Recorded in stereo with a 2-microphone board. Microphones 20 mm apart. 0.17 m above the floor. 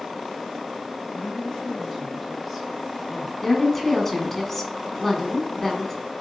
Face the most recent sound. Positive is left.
turn(degrees=10)  # may be behind; listen again after turning